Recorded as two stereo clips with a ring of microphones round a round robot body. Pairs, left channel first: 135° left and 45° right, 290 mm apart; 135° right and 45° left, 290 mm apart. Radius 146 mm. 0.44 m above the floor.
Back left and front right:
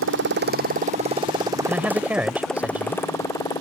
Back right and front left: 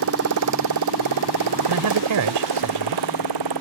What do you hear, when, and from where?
0.0 s a motorcycle: straight ahead; by 3.6 s 60° left
1.7 s a man speaking: 40° left